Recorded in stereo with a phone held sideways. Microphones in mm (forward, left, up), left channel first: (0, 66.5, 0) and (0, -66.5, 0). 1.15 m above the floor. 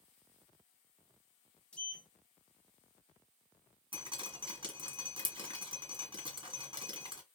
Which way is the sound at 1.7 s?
10° left (ahead or behind).